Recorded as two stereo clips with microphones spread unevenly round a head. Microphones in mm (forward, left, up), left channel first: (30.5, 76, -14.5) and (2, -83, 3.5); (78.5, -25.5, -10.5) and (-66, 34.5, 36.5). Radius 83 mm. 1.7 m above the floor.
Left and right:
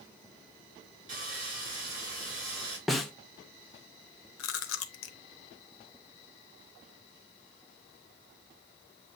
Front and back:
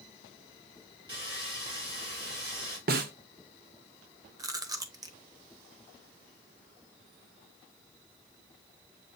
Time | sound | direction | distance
1.1 | sawing | 140° right | 4 m
2.9 | a snare drum | 170° left | 0.6 m
4.4 | chewing | 90° left | 0.7 m